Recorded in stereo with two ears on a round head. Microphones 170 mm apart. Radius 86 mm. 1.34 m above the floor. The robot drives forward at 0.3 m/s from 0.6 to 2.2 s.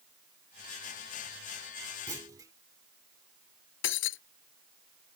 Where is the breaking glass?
75° left (ahead or behind).